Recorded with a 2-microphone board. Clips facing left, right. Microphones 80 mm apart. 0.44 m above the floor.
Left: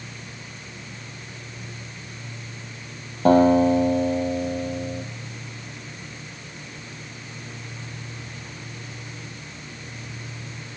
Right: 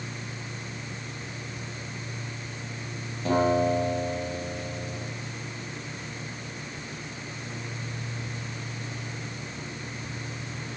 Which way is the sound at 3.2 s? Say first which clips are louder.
Left 8 dB; 50° left (ahead or behind).